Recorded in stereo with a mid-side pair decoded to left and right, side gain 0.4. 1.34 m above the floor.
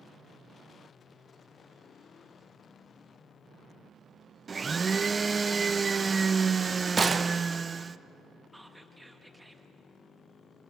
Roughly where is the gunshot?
Ahead right.